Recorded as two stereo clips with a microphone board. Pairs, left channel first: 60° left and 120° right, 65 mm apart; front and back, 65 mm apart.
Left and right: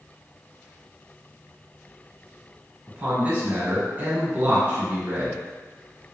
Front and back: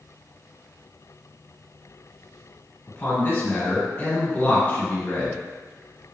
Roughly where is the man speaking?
Ahead right.